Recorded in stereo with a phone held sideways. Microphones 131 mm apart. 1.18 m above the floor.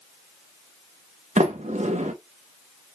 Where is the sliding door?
60° right (ahead or behind), 0.8 m.